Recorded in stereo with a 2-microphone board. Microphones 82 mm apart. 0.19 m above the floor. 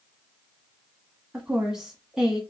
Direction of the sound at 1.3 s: 5° right (ahead or behind).